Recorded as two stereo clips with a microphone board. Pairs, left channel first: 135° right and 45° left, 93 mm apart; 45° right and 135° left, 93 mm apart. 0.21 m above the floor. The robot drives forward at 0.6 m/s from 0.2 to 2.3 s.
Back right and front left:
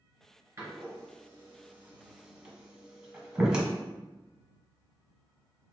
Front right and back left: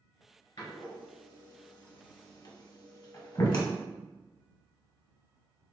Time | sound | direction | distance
0.6 | a door slam | 15° right | 1.9 m